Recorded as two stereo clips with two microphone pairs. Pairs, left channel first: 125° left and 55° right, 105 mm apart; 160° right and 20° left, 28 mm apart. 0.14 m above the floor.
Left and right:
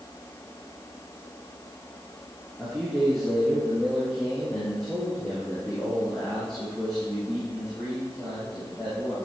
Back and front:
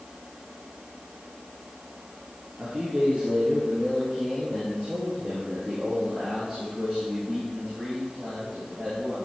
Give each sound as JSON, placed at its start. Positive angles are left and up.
{"t": 2.6, "sound": "a man speaking", "azimuth_deg": 30, "distance_m": 2.5}